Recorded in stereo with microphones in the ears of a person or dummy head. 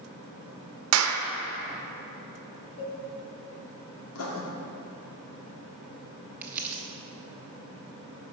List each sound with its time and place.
0.9 s a clap: 85° right, 0.6 m
2.8 s a cowbell: 50° left (ahead or behind), 2 m
4.2 s writing: 80° left, 1.3 m
6.4 s crumpling: 15° right (ahead or behind), 0.6 m